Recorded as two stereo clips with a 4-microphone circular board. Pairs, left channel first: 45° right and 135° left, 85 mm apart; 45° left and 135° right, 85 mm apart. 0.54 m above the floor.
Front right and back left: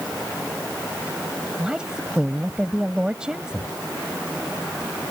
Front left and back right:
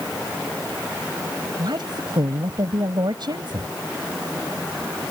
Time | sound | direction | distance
1.6 | a woman speaking | 145° right | ?